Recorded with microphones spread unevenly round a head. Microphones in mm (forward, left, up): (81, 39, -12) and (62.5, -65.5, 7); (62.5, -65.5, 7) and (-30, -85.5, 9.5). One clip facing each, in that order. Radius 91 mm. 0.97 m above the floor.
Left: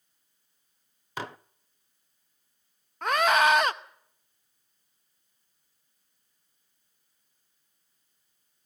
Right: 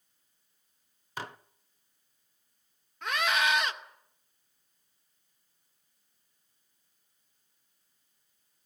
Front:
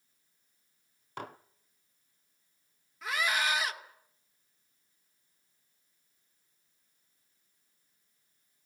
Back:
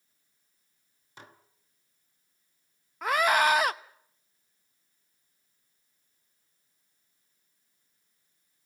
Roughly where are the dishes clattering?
Left.